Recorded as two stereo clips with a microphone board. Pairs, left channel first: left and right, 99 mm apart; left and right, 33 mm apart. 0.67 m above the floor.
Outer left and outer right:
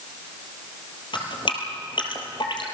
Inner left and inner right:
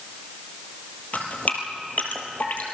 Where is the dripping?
50° left (ahead or behind), 3 m.